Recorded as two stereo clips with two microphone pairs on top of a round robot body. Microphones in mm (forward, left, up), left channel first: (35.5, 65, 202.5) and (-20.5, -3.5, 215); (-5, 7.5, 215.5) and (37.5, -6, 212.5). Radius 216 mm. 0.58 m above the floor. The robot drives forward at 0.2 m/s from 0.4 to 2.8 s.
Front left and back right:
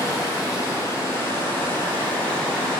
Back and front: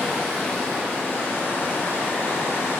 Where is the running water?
90° left, 0.9 m; by 2.8 s 125° left, 1.0 m.